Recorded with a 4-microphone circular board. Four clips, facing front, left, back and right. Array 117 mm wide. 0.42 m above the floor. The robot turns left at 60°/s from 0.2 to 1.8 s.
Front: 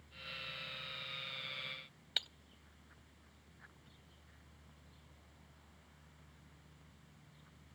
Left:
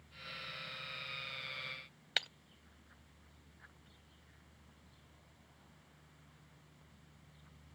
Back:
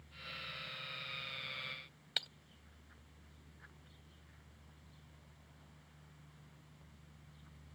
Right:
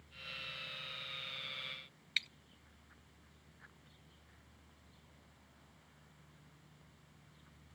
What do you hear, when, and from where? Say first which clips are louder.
2.2 s breaking glass: left 4 dB, even; 95° left